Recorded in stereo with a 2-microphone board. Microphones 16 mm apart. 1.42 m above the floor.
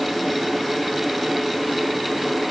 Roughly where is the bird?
I don't hear a bird.